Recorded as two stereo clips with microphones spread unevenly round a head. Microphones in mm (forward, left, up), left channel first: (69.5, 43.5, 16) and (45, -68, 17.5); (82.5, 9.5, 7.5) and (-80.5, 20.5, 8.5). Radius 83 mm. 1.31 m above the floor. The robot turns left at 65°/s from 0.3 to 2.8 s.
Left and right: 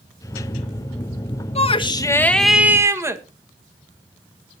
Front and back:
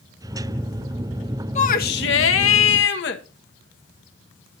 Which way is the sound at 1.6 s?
50° left.